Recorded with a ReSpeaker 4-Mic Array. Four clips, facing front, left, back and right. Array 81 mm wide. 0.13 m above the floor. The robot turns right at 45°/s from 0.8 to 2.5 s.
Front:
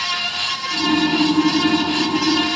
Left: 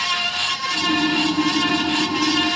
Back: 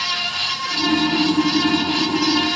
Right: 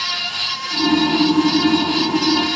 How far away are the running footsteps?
No running footsteps in this recording.